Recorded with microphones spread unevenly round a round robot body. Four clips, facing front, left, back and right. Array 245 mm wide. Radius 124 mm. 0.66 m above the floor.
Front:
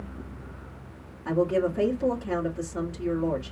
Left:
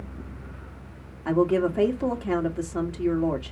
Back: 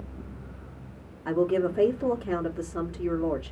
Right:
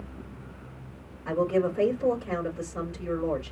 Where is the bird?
No bird in this recording.